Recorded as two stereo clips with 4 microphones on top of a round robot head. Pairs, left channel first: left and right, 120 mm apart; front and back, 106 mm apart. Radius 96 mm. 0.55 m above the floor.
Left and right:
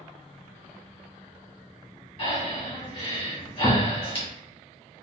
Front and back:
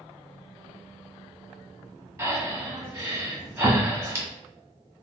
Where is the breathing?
125° left, 1.8 m.